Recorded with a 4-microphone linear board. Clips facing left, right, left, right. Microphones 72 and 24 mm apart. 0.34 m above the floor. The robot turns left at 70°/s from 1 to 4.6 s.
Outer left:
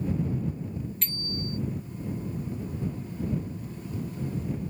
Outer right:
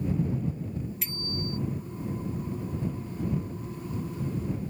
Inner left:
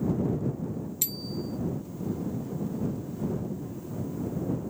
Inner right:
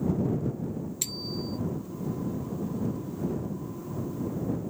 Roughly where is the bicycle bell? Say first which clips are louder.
Even, even; ahead.